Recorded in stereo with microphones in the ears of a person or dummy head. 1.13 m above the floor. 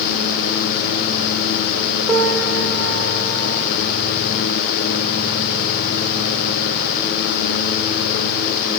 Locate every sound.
2.1 s a piano: 5° right (ahead or behind), 1.8 m